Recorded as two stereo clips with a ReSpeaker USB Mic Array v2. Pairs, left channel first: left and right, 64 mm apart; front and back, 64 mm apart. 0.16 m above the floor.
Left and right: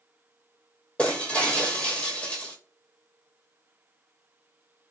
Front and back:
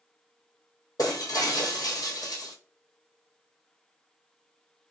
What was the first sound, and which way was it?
Breaking glass, 20° left.